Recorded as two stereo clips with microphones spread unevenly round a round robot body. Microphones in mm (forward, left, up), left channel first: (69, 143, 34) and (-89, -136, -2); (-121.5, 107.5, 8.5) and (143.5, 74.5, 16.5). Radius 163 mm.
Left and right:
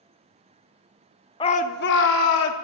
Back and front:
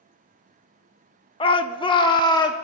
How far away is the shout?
About 0.5 m.